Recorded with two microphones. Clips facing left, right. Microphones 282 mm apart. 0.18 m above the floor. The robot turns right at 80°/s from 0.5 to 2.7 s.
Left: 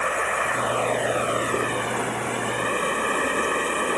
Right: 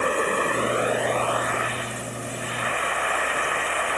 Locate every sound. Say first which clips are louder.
0.0 s running water: right 4 dB; 40° right; by 4.0 s 135° left